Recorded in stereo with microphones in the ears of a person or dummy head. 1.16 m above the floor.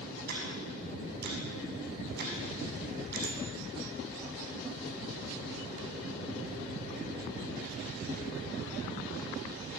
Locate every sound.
0.3 s ticking: 50° right (ahead or behind), 6.5 m
3.2 s a bicycle bell: 80° right, 5 m